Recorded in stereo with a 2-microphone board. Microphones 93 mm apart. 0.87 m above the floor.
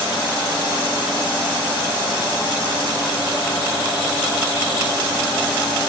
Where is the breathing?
No breathing in this recording.